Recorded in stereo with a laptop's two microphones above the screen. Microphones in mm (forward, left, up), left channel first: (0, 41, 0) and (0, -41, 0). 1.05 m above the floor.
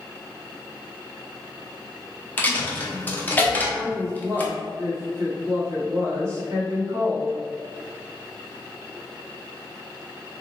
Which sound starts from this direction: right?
A woman speaking, at 3.7 s.